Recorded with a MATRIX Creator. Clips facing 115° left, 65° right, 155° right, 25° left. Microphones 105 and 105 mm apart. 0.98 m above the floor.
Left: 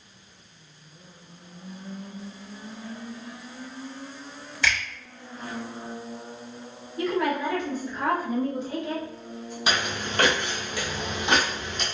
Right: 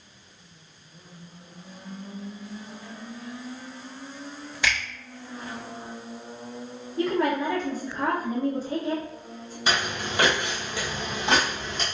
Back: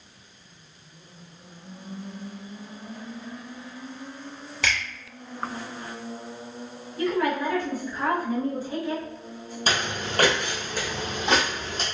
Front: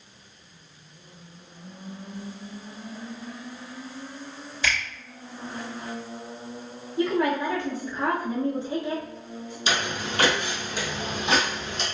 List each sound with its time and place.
4.6 s a finger snap: 145° right, 1.8 m
7.0 s a woman speaking: 35° right, 0.9 m
9.7 s footsteps: 160° right, 1.4 m; by 11.8 s 110° right, 1.9 m